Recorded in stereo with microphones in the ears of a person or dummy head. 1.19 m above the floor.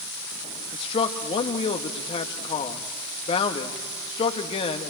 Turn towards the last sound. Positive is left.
turn(degrees=35)  # may be behind; listen again after turning